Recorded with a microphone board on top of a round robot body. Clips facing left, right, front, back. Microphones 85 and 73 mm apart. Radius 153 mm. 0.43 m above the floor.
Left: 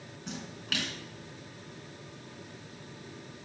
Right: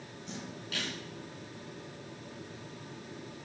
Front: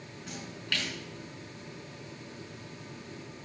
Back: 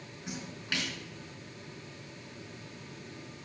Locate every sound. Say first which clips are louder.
0.3 s a splash: left 3 dB, even; 105° left, 3.5 m